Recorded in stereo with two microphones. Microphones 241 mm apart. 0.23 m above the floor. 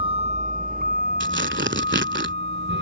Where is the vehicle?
20° right (ahead or behind); by 2.8 s 50° right (ahead or behind).